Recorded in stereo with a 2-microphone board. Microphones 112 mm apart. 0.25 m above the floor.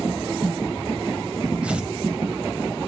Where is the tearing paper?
10° right (ahead or behind), 0.9 m.